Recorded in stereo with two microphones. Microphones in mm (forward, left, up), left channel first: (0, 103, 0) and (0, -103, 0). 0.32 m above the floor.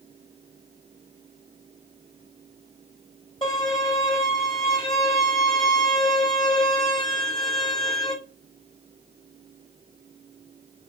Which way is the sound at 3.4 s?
25° left (ahead or behind).